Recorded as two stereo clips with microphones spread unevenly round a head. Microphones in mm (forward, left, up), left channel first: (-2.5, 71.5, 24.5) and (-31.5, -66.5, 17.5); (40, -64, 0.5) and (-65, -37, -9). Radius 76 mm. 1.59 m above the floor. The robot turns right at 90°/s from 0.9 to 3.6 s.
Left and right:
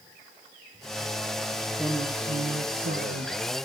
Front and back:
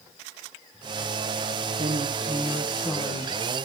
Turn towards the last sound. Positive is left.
turn(degrees=-25)